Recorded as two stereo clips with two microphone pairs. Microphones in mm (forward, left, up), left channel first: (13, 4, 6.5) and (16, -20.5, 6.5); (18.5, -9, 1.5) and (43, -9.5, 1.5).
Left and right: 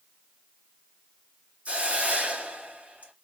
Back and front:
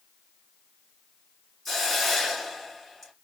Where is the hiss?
95° right, 3 m.